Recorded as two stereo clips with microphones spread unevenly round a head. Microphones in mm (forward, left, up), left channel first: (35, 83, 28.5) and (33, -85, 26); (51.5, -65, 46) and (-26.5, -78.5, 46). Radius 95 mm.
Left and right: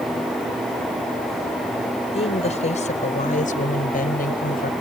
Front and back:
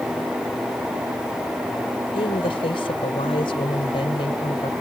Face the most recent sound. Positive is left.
turn(degrees=55)